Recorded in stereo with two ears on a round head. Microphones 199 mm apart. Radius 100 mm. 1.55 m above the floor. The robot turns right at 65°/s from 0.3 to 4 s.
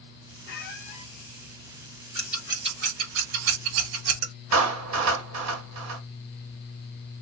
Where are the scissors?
5° left (ahead or behind), 3 m; by 4.3 s 65° right (ahead or behind), 3 m.